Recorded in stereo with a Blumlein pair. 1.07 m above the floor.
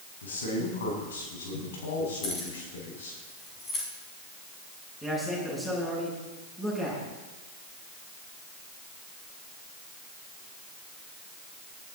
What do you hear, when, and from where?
0.2 s a man speaking: 65° left, 6 m; by 3.2 s 60° left, 7.5 m
2.2 s keys jangling: 15° left, 5.5 m
5.0 s a man speaking: 5° left, 9.5 m